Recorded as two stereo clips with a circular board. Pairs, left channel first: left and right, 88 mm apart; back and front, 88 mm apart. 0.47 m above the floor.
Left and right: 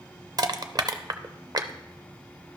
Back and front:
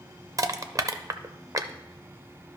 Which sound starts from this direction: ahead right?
Crushing, at 0.4 s.